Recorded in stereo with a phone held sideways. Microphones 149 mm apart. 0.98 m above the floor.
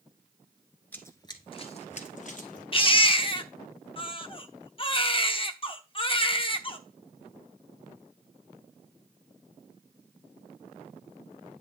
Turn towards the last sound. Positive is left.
turn(degrees=35)  # may be behind; listen again after turning